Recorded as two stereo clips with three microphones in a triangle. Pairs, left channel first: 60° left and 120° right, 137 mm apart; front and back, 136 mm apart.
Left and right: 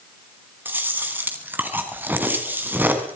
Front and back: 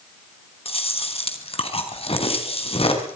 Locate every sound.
0.7 s chewing: 45° right, 3 m